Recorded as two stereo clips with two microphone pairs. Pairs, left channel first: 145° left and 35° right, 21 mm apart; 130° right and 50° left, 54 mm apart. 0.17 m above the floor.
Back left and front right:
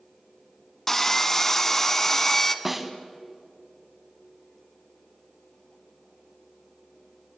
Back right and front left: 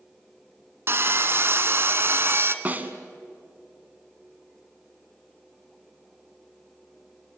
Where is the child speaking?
No child speaking in this recording.